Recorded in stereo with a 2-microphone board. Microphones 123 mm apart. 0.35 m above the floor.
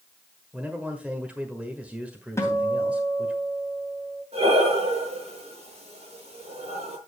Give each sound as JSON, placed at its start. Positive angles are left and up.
{"t": 0.5, "sound": "a man speaking", "side_deg": -10, "distance_m": 1.5}
{"t": 2.4, "sound": "a guitar", "side_deg": 20, "distance_m": 2.5}
{"t": 4.3, "sound": "breathing", "side_deg": -60, "distance_m": 6.5}